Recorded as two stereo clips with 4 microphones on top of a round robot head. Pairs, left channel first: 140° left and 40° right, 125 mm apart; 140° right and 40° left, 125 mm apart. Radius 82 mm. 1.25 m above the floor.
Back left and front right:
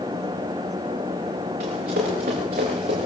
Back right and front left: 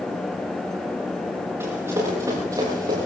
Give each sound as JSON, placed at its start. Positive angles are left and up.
{"t": 1.6, "sound": "running footsteps", "azimuth_deg": -30, "distance_m": 7.0}